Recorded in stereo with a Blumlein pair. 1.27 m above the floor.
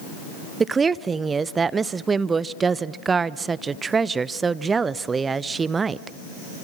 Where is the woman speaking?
15° right, 0.7 m.